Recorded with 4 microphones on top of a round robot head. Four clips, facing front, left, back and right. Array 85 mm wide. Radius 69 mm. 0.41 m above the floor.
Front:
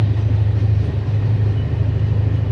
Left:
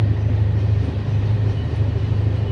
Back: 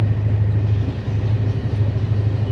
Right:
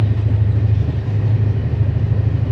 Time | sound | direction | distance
0.0 | an engine running | 100° right | 5.5 m